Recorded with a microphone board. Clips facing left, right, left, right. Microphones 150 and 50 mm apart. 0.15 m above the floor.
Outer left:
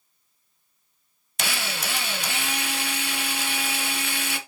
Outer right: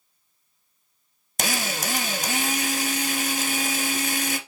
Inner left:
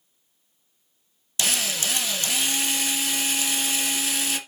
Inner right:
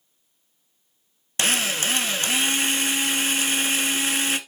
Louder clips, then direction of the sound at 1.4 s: Outer right 3 dB, inner right 4 dB; 40° right (ahead or behind).